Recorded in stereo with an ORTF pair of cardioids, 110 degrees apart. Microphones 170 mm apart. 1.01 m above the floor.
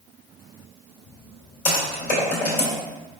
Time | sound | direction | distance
1.6 | typing on a keyboard | 50° left | 2.0 m